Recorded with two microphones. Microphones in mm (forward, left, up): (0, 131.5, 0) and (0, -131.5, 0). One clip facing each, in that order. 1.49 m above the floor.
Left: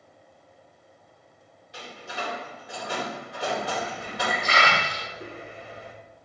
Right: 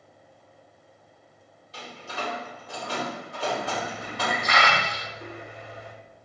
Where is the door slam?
15° left (ahead or behind), 4.5 m.